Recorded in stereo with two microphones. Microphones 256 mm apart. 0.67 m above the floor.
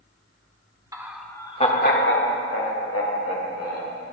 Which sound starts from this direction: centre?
Laughter, at 0.9 s.